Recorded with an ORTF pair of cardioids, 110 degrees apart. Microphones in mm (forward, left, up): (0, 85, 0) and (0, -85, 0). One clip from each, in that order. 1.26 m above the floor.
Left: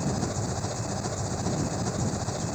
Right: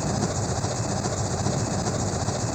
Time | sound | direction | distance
0.0 | an engine running | 25° right | ?